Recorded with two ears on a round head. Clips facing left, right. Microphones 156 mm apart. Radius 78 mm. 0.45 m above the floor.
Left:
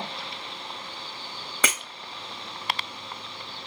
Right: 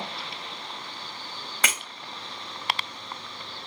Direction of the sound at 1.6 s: 75° left (ahead or behind).